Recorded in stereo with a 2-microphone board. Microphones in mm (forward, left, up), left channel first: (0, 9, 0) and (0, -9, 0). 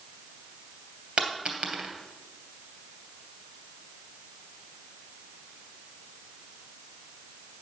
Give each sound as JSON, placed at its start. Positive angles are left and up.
{"t": 1.2, "sound": "a dropped coin", "side_deg": -65, "distance_m": 2.5}